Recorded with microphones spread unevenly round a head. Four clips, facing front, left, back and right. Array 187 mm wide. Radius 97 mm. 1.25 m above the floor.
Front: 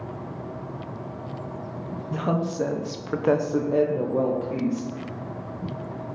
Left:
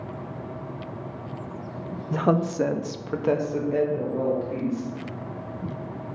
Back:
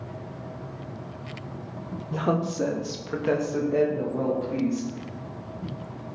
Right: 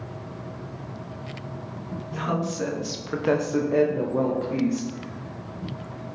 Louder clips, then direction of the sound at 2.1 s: Left 5 dB, even; 95° left.